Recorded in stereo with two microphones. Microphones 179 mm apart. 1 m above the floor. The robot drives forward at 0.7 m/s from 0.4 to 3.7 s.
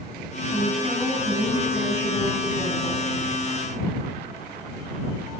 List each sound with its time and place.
0.5 s a woman speaking: 25° left (ahead or behind), 8.5 m; by 3.0 s 20° left (ahead or behind), 10.5 m